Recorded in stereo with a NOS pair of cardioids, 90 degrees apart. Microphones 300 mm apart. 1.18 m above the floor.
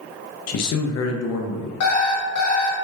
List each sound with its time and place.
0.5 s a man speaking: 60° left, 0.7 m
1.8 s an alarm clock: 65° left, 1.3 m